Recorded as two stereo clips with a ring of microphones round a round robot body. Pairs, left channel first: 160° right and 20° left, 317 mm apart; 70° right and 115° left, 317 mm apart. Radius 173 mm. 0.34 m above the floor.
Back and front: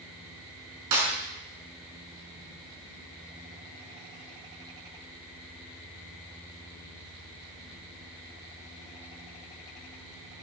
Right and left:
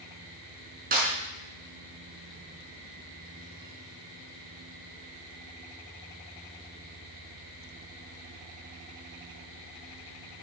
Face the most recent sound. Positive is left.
turn(degrees=50)